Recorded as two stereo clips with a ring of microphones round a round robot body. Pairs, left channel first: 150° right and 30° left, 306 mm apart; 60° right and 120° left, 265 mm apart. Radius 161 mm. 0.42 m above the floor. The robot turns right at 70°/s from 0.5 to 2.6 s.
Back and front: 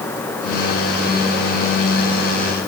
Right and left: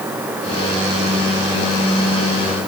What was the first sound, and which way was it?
Only background noise.